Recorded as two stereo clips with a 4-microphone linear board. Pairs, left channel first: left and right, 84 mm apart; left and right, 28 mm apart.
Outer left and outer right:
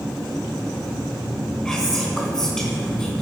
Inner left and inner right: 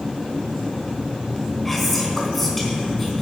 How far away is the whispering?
About 3 m.